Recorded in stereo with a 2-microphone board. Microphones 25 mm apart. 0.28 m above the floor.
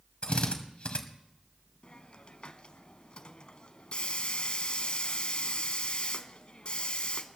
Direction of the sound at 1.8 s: 40° left (ahead or behind).